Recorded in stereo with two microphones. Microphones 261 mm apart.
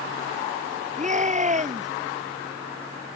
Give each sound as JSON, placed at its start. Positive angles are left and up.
{"t": 1.0, "sound": "a shout", "side_deg": -25}